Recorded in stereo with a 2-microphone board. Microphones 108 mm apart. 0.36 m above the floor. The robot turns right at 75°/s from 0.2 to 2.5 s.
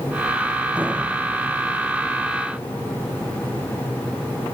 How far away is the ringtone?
No ringtone in this recording.